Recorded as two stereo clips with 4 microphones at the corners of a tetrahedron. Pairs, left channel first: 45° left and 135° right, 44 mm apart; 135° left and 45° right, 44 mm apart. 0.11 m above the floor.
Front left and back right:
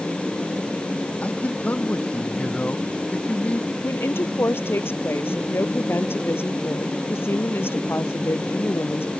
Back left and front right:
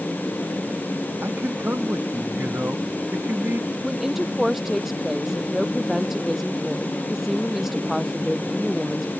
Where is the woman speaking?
35° left.